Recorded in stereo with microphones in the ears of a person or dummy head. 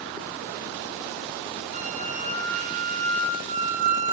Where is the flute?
40° right (ahead or behind), 4 m.